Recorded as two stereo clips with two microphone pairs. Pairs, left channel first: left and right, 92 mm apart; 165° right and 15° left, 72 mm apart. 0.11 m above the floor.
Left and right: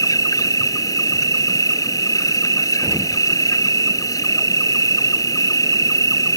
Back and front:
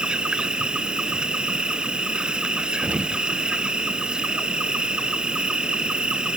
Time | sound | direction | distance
0.0 | an insect | 90° left | ?
2.8 | an explosion | 50° right | ?